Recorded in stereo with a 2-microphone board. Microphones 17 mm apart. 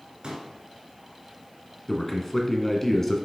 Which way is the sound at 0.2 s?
55° right (ahead or behind).